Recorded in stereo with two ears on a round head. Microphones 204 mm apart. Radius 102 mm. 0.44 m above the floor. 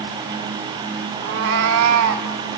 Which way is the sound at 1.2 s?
50° right (ahead or behind).